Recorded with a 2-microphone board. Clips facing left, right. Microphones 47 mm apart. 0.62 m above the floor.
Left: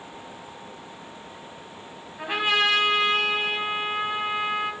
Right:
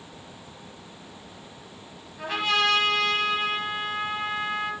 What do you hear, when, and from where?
2.2 s a trumpet: 20° left (ahead or behind), 3 m